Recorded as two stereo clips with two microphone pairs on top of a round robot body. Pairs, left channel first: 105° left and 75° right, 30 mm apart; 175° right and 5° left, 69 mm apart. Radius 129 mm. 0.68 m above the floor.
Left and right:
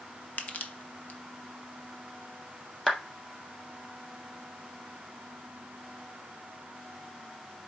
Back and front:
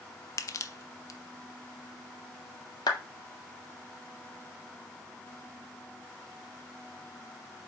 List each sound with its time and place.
0.4 s crushing: 140° left, 0.8 m
2.9 s a clap: 170° right, 2 m